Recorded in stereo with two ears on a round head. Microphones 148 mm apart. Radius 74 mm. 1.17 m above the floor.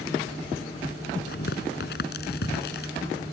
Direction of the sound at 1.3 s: 65° left (ahead or behind).